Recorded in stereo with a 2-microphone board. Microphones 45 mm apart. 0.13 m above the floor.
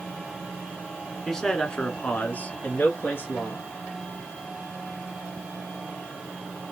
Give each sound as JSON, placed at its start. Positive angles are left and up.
{"t": 1.3, "sound": "a man speaking", "side_deg": 10, "distance_m": 1.5}